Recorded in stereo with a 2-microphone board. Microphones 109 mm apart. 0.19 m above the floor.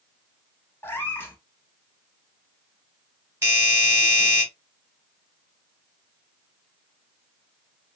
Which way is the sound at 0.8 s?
20° left (ahead or behind).